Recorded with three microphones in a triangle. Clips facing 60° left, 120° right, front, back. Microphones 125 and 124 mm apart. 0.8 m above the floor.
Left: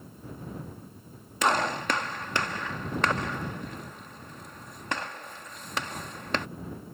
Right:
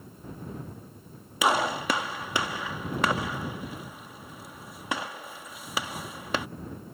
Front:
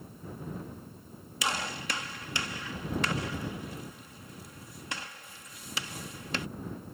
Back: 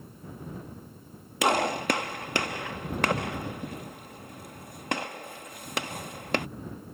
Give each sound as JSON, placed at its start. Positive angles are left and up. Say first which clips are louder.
{"t": 1.4, "sound": "a gunshot", "louder": "right 1 dB, back 10 dB", "azimuth_deg": 160}